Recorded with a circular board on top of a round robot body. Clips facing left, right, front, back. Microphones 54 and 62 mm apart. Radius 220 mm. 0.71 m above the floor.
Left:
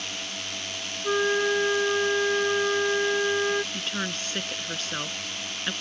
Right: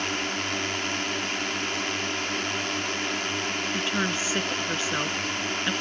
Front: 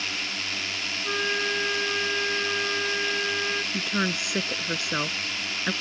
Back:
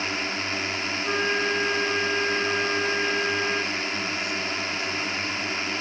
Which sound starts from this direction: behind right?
A drone, at 0.0 s.